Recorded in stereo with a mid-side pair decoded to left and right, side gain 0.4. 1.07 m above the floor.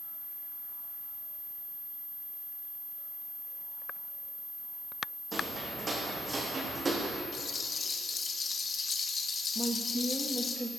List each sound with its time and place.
5.3 s footsteps: 40° right, 3.5 m; by 7.2 s 30° right, 4.5 m
7.3 s a rattle: 50° left, 1.3 m
9.6 s a woman speaking: 10° right, 1.2 m